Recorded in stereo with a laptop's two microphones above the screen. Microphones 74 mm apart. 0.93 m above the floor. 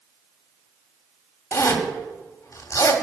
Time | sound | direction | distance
1.5 | a zipper | 40° left (ahead or behind) | 2 m